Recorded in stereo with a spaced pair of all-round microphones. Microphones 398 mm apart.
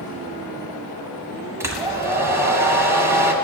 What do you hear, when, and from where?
1.6 s a hair dryer: 5° right (ahead or behind), 1.7 m